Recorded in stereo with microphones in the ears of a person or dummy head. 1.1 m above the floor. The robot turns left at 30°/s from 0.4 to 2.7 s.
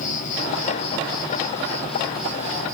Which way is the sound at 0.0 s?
50° left.